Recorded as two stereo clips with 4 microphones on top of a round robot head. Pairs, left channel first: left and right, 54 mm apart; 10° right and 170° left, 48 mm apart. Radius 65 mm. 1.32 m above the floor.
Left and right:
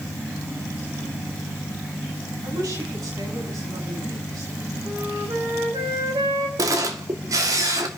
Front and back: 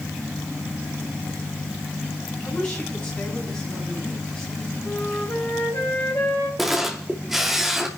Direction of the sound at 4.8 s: 65° right.